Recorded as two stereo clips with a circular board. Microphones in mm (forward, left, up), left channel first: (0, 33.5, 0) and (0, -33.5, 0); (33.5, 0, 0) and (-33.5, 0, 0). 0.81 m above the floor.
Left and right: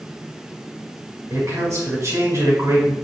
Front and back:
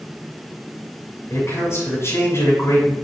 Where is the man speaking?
45° right, 5.5 m.